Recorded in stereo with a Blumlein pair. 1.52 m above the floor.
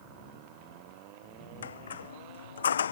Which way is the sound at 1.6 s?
65° left.